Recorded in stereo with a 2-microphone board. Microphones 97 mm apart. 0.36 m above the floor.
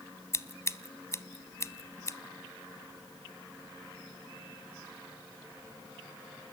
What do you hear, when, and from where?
0.3 s scissors: 30° left (ahead or behind), 0.6 m